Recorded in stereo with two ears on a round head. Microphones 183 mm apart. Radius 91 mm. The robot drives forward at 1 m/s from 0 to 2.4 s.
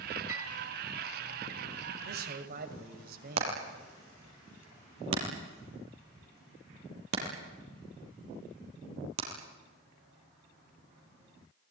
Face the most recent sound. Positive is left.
turn(degrees=-80)